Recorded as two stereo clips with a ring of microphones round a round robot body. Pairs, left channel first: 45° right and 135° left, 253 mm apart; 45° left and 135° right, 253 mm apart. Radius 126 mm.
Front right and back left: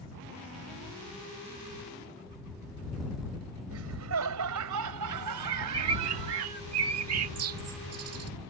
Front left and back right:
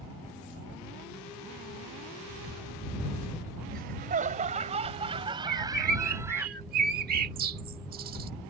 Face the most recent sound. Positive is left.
turn(degrees=170)